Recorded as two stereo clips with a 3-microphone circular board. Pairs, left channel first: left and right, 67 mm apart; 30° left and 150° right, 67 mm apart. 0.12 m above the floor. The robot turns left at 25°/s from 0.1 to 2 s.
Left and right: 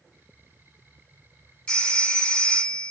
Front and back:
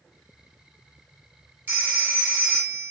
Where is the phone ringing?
165° left, 1.7 m; by 2.9 s 155° left, 1.7 m.